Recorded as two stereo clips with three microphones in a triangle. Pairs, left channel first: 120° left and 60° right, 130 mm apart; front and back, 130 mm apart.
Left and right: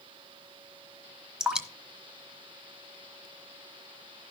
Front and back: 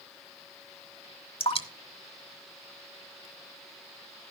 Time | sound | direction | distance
1.4 | dripping | 25° left | 1.2 m